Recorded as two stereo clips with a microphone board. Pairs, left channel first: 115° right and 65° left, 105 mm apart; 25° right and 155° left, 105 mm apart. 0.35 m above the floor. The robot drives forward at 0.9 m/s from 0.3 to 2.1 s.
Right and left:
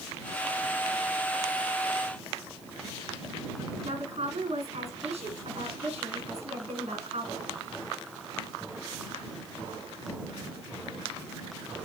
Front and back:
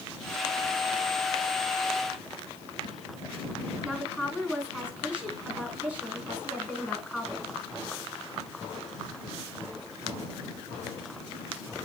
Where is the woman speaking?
75° left, 4 m.